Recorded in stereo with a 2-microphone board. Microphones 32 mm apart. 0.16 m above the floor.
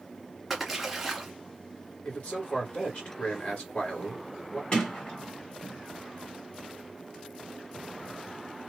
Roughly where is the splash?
Centre.